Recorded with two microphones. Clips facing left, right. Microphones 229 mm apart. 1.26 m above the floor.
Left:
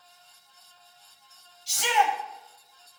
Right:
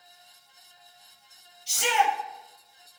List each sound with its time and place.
1.7 s a shout: 60° right (ahead or behind), 6 m